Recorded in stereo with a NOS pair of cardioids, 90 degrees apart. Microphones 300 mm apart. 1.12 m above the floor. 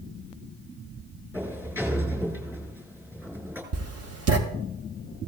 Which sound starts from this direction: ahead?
A sliding door, at 1.3 s.